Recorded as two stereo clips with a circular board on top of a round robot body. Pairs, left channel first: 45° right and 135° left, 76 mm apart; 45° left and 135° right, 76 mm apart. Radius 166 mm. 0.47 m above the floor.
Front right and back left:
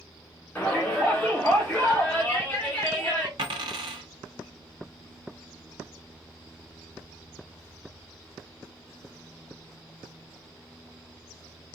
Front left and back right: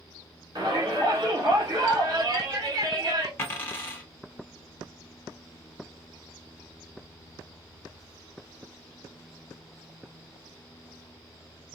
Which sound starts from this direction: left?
A dropped coin, at 3.4 s.